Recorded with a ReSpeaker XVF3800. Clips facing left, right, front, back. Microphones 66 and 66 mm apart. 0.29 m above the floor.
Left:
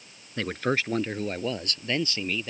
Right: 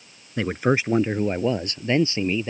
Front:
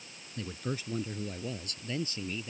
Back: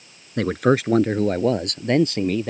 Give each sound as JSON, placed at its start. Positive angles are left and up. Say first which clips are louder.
{"t": 0.4, "sound": "a man speaking", "louder": "right 5 dB, back 19 dB", "azimuth_deg": -165}